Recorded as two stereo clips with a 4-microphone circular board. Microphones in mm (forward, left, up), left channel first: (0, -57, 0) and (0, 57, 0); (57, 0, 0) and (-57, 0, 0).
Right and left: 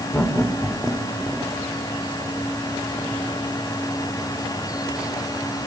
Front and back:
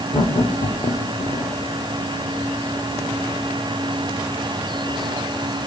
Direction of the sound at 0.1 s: 25° right.